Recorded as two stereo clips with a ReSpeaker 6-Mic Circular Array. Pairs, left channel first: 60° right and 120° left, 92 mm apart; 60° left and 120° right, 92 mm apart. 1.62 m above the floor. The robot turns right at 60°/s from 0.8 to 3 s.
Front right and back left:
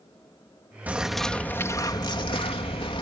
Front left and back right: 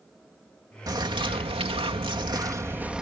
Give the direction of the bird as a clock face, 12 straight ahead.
6 o'clock.